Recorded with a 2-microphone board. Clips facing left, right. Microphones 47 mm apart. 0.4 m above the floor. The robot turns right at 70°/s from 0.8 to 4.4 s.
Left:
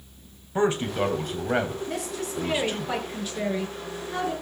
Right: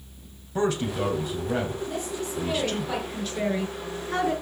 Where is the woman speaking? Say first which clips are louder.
Even; 75° left, 6.5 m; by 4.3 s 115° right, 6.5 m.